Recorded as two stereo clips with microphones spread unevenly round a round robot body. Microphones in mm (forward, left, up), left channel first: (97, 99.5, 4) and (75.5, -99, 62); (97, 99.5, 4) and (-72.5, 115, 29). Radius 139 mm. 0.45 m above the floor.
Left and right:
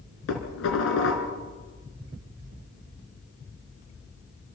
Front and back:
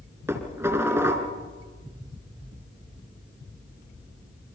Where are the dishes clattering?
100° left, 4.5 m.